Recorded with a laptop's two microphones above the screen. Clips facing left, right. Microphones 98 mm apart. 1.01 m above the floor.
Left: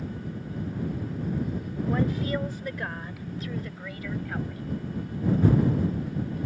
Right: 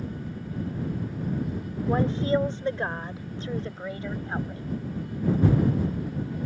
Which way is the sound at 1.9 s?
30° right (ahead or behind).